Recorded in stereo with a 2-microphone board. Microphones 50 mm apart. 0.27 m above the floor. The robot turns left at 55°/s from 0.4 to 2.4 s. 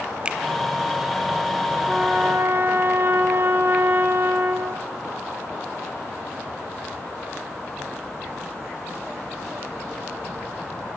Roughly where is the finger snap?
Centre.